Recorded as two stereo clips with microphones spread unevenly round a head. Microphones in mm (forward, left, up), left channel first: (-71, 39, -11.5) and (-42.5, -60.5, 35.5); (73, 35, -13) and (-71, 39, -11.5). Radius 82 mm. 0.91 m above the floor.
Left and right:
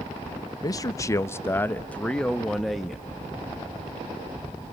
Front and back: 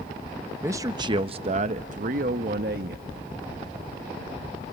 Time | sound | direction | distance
0.6 | a man speaking | 110° left | 0.8 m